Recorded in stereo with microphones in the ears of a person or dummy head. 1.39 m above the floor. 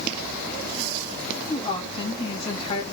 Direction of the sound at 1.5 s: 35° left (ahead or behind).